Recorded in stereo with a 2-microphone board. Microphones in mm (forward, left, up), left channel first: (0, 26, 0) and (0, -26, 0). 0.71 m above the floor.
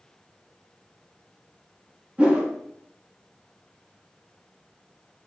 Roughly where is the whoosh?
Right.